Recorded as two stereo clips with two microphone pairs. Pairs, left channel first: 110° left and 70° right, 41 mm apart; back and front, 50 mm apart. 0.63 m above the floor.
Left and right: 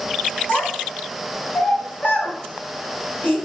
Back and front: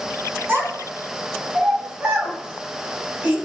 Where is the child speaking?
50° left, 1.7 m; by 3.4 s 60° left, 3 m.